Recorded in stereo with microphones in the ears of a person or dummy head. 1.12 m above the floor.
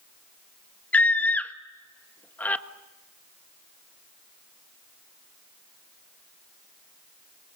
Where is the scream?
10° left (ahead or behind), 1.3 m.